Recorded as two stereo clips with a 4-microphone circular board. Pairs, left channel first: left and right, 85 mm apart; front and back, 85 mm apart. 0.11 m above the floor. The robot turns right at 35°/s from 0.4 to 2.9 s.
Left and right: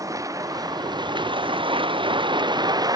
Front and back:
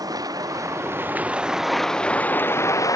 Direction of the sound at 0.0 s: 135° right.